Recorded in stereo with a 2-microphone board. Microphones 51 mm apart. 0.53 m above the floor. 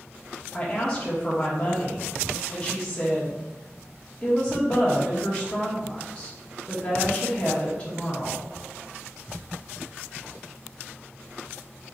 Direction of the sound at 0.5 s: 20° left (ahead or behind).